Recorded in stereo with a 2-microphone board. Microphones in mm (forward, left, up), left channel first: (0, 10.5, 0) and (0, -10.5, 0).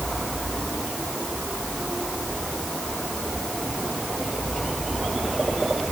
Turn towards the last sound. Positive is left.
No sound to turn to.